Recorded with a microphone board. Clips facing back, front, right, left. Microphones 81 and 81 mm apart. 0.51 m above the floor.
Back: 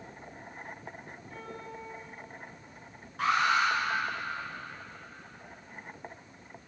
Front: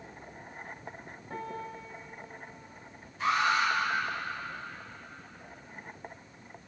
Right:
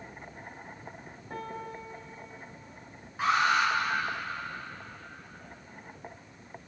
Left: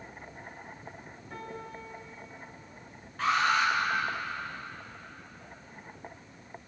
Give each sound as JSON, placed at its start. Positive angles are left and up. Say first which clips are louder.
{"t": 1.3, "sound": "a piano", "louder": "front 5 dB, right 3 dB", "azimuth_deg": -35, "distance_m": 3.0}
{"t": 3.2, "sound": "an alarm", "louder": "back 1 dB, right 1 dB", "azimuth_deg": -165, "distance_m": 7.5}